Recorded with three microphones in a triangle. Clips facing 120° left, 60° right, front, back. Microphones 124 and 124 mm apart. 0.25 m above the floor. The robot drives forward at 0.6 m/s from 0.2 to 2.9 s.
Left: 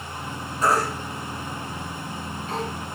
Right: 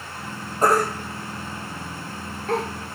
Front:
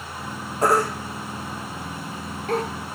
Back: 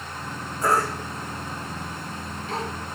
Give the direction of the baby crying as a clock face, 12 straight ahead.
1 o'clock.